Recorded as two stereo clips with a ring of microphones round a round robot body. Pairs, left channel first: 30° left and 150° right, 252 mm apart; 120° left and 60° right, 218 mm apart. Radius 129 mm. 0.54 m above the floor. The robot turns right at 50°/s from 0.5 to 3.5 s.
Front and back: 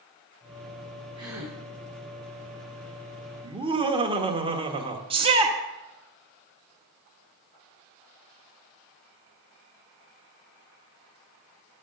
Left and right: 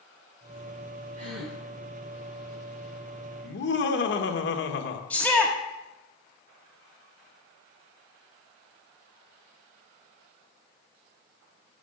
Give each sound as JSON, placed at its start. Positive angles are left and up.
{"t": 1.2, "sound": "a gasp", "azimuth_deg": -80, "distance_m": 4.0}
{"t": 3.4, "sound": "laughter", "azimuth_deg": 140, "distance_m": 1.5}
{"t": 5.1, "sound": "a shout", "azimuth_deg": -165, "distance_m": 1.2}